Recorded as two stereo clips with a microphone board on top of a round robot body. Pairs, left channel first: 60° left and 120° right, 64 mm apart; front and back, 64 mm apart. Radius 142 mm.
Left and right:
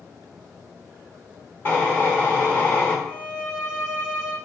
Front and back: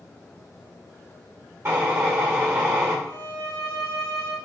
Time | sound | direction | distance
1.6 | a drill | 125° left | 2.5 m
3.0 | a violin | 160° left | 1.3 m